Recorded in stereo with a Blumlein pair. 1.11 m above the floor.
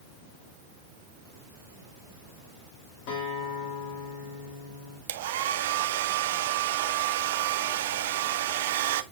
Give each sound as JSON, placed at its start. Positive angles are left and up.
{"t": 3.1, "sound": "a guitar", "azimuth_deg": 45, "distance_m": 3.0}
{"t": 5.1, "sound": "a hair dryer", "azimuth_deg": -55, "distance_m": 0.5}